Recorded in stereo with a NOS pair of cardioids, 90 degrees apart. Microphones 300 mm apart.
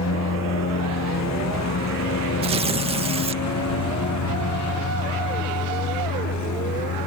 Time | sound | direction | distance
0.0 | a lawn mower | 60° left | ?
2.4 | tearing paper | 20° right | ?